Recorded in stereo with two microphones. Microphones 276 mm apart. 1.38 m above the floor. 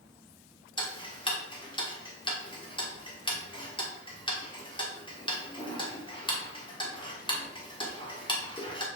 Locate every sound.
0.8 s ticking: 20° left (ahead or behind), 1.4 m